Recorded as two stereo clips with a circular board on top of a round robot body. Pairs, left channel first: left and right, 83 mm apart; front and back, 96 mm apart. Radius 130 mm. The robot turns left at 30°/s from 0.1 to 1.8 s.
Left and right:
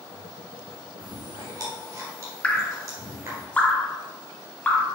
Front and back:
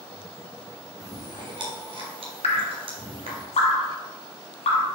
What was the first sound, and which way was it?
Chewing, 125° right.